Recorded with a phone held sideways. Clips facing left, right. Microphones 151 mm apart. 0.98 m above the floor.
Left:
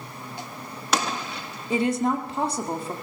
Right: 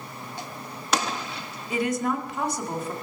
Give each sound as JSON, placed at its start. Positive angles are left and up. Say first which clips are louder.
{"t": 1.7, "sound": "a woman speaking", "louder": "left 3 dB", "side_deg": 30, "distance_m": 2.0}